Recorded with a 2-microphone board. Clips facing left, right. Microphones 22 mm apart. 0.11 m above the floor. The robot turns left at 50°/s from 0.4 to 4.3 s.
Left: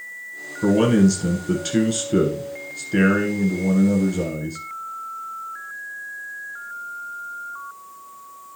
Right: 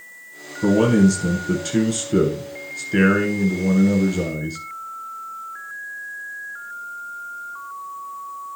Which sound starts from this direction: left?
A man speaking, at 0.6 s.